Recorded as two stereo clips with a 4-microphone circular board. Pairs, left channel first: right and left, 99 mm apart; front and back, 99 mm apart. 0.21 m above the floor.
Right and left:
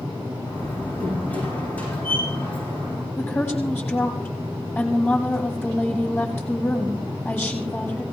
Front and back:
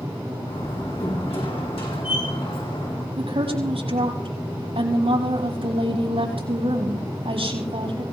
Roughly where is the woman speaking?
Behind.